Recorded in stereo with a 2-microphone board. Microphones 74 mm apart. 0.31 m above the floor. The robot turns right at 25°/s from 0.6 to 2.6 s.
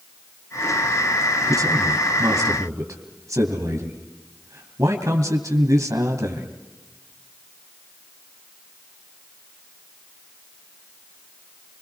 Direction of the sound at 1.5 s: 55° right (ahead or behind).